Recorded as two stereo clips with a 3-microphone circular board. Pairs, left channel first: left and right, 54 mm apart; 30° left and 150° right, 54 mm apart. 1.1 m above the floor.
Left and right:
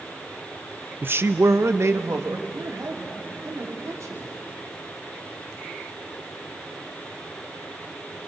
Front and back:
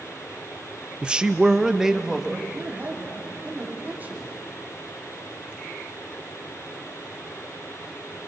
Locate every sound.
1.0 s a man speaking: 90° right, 0.6 m; by 2.4 s 65° right, 1.9 m
2.5 s a man speaking: 95° right, 3 m